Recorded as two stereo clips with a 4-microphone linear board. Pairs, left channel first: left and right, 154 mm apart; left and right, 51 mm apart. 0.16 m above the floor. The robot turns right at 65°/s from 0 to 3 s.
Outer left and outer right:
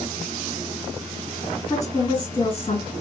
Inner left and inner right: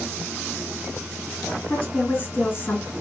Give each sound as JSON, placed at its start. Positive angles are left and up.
{"t": 1.7, "sound": "a woman speaking", "azimuth_deg": 25, "distance_m": 2.0}